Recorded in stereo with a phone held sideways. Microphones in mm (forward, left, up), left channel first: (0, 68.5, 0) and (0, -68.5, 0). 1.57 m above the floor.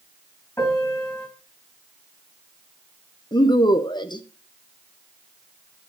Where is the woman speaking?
30° left (ahead or behind), 0.8 m.